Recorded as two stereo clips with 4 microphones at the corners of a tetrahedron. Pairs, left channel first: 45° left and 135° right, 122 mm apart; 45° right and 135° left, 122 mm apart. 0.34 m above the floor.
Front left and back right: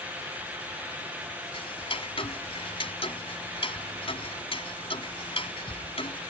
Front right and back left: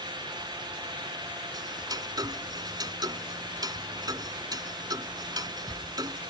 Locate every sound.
1.5 s ticking: 80° left